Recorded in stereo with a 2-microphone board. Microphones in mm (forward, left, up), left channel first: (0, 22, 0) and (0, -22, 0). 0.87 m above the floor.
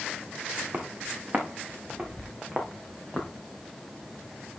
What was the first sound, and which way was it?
Footsteps, 40° right (ahead or behind).